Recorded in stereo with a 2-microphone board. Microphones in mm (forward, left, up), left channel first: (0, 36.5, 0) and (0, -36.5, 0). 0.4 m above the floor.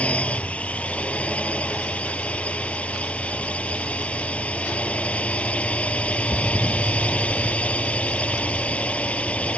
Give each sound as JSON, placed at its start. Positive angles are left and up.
{"t": 0.0, "sound": "a drone", "side_deg": 20}